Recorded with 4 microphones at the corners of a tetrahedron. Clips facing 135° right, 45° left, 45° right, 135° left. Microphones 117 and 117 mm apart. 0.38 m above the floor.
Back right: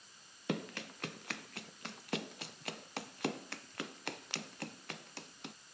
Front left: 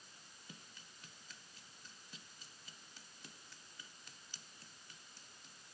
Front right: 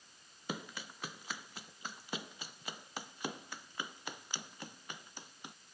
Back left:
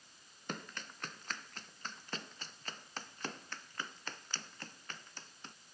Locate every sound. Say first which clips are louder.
0.5 s running footsteps: back right 23 dB, front right 2 dB; 125° right